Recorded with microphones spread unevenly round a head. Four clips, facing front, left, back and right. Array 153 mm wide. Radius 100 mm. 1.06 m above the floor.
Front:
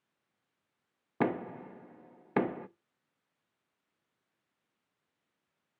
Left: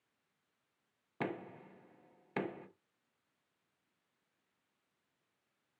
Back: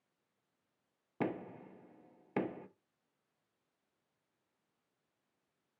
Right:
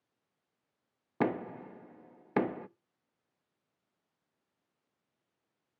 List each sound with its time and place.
1.2 s knocking: 10° right, 0.6 m